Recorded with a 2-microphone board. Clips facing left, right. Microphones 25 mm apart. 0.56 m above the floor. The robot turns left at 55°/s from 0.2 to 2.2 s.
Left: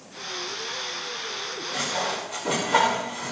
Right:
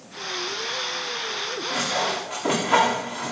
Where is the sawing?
85° right, 8 m; by 3.3 s 65° right (ahead or behind), 8 m.